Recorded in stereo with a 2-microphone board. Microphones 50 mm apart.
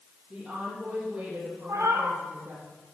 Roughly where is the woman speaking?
Right.